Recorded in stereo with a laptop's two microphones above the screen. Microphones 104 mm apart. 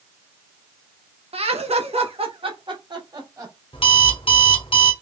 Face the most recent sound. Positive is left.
turn(degrees=60)  # may be behind; listen again after turning